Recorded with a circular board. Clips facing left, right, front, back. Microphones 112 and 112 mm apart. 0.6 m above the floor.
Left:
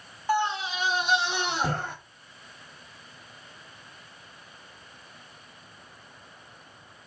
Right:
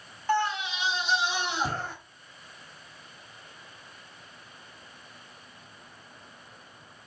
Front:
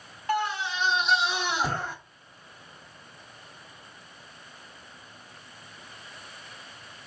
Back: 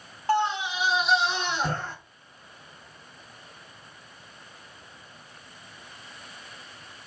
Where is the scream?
165° left, 0.6 m; by 1.9 s 80° left, 1.7 m.